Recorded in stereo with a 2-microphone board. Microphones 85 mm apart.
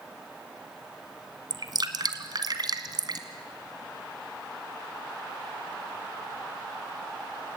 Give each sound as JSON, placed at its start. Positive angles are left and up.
{"t": 1.5, "sound": "dripping", "side_deg": -55, "distance_m": 1.5}